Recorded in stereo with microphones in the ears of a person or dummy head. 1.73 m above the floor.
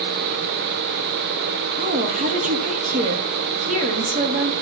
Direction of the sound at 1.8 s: 45° right (ahead or behind).